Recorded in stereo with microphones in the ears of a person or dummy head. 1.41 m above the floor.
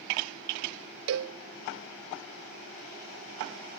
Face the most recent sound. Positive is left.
turn(degrees=-60)  # may be behind; listen again after turning